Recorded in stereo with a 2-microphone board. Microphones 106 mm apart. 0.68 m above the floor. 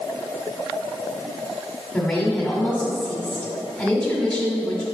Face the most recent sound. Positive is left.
turn(degrees=10)  # may be behind; listen again after turning